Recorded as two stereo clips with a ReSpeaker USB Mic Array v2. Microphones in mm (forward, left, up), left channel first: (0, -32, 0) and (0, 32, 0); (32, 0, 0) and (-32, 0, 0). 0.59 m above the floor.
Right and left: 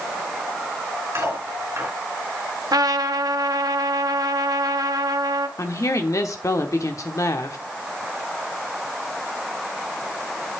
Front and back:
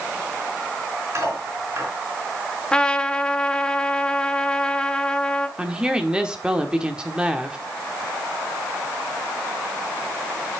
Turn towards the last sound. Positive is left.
turn(degrees=-110)